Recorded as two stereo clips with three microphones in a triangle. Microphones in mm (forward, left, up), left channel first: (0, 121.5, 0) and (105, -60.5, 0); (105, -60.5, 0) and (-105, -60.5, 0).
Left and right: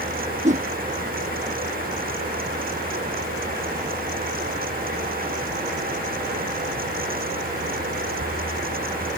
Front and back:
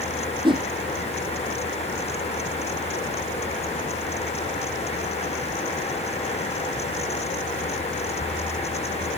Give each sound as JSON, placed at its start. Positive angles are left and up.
{"t": 0.4, "sound": "a whoosh", "azimuth_deg": -115}